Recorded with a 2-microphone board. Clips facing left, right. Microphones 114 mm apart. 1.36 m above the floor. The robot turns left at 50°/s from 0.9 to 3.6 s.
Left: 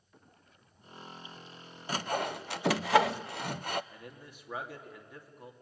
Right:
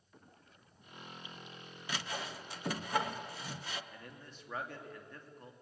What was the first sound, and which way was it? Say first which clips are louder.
Sawing: left 9 dB; 40° left (ahead or behind).